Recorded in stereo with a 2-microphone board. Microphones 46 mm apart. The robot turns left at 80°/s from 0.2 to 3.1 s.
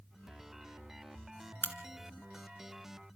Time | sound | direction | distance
1.6 | a crack | 50° left (ahead or behind) | 2.5 m